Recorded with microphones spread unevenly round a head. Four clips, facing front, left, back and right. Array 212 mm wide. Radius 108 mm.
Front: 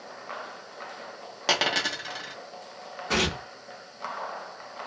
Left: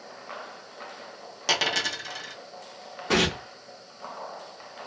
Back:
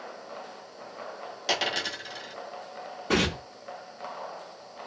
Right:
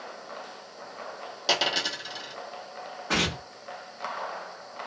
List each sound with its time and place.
1.5 s a dropped coin: straight ahead, 0.8 m
3.1 s tearing paper: 145° left, 0.6 m